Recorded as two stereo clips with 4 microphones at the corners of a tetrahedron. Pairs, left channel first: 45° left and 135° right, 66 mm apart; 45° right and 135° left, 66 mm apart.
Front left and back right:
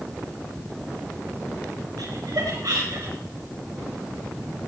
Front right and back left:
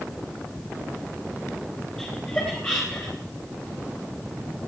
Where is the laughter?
110° right, 3 m; by 3.1 s 90° right, 2.5 m.